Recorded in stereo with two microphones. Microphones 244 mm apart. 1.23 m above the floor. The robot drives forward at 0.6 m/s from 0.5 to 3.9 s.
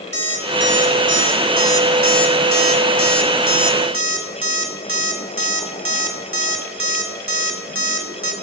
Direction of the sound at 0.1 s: 50° right (ahead or behind).